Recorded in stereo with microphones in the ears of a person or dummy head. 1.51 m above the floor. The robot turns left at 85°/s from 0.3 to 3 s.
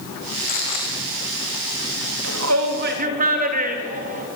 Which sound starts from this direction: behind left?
Footsteps, at 0.4 s.